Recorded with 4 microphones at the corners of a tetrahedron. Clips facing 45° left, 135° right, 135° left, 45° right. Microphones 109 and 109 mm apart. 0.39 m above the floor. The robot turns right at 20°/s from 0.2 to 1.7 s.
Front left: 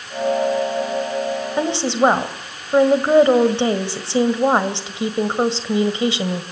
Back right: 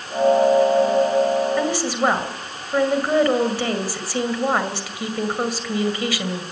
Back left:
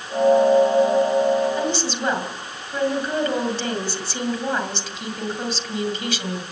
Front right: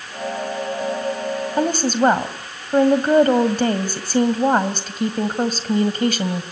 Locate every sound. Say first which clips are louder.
1.6 s a woman speaking: front left 3 dB, front right 6 dB; 20° right, 2 m; by 6.4 s 15° right, 2 m